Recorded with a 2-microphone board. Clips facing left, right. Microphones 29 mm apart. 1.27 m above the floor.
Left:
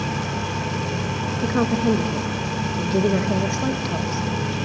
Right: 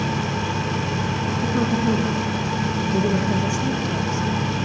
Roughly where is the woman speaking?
Left.